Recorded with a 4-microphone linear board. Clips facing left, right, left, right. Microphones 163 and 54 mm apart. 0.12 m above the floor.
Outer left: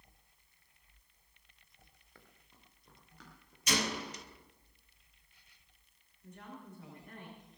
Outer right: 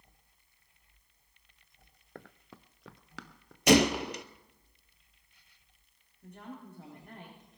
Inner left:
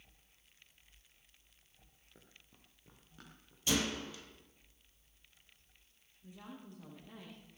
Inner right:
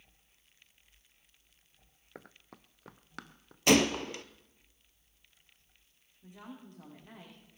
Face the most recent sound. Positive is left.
turn(degrees=-55)  # may be behind; listen again after turning